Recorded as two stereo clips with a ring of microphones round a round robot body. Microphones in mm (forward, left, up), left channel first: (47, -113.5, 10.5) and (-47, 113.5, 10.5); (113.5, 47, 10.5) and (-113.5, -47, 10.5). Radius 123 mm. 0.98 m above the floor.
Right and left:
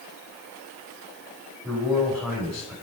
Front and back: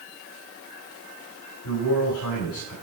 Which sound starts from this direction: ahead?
A man speaking, at 1.6 s.